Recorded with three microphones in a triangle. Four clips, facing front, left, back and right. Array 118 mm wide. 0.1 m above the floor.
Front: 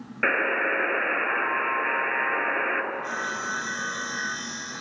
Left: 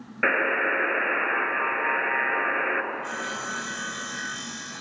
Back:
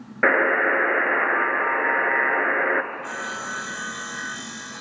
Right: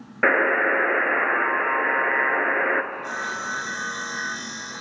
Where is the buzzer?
140° right, 1.4 m.